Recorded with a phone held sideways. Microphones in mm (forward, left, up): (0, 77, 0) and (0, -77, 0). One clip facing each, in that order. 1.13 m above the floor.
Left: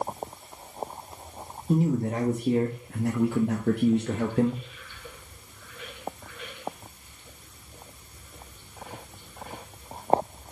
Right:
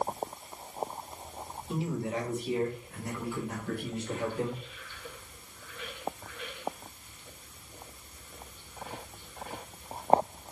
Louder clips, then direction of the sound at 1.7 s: Left 8 dB; 40° left (ahead or behind).